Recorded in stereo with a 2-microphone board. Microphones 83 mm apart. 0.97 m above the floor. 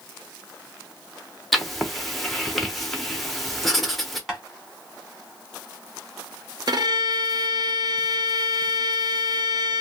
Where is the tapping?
5° right (ahead or behind), 1.3 m.